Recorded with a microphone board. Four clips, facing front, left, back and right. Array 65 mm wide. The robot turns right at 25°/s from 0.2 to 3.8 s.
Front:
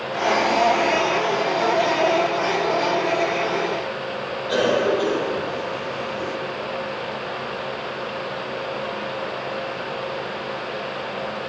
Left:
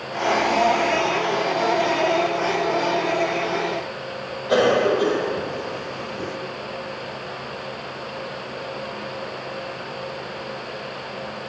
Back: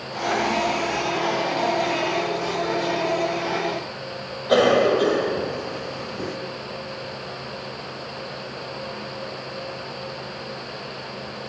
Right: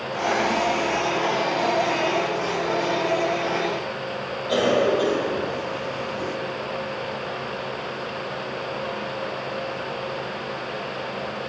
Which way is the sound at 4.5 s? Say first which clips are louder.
Left 2 dB, back 3 dB; 155° left.